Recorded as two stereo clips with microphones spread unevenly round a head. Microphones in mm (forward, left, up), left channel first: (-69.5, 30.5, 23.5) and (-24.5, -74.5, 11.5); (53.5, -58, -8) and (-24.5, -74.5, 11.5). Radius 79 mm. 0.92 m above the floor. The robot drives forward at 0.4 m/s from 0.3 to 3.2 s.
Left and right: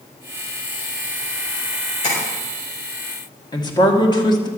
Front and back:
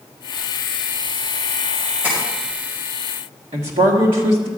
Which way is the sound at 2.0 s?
110° left.